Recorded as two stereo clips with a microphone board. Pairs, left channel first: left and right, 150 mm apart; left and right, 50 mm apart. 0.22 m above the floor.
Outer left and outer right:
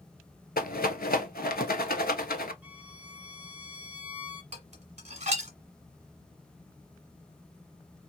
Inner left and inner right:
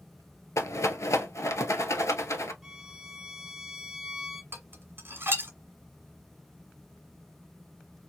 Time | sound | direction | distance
0.6 | a rattle | 90° left | 0.6 m
2.6 | a violin | 10° right (ahead or behind) | 0.7 m
4.5 | dishes clattering | 50° right (ahead or behind) | 1.3 m